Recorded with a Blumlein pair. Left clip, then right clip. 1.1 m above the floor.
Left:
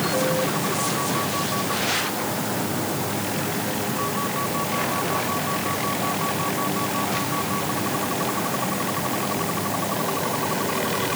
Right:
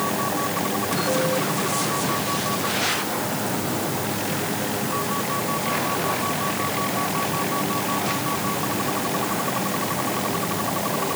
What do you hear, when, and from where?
Only background noise.